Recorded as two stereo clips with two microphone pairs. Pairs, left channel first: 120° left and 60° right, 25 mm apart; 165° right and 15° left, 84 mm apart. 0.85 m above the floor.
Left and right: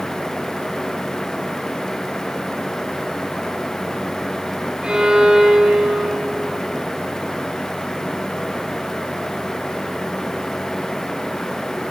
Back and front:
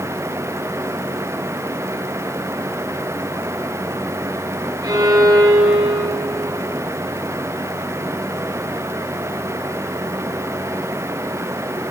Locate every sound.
4.8 s a violin: 20° right, 4 m